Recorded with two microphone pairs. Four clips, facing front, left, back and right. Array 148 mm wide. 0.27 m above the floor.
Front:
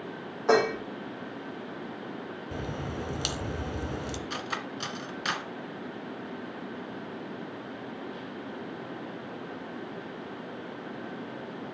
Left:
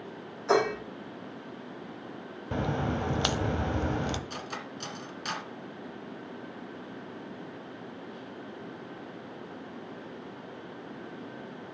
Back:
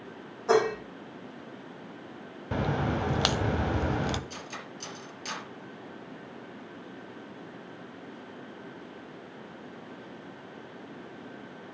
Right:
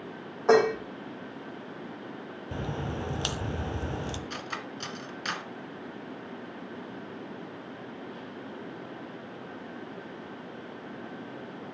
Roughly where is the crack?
Behind left.